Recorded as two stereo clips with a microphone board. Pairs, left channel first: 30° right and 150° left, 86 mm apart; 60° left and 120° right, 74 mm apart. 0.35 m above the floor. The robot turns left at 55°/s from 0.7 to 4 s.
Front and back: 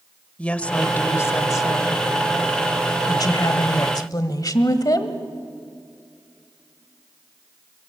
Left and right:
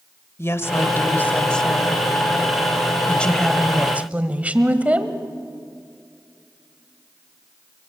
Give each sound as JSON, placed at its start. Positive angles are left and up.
{"t": 0.4, "sound": "a woman speaking", "azimuth_deg": 35, "distance_m": 1.2}
{"t": 3.1, "sound": "a woman speaking", "azimuth_deg": -5, "distance_m": 1.4}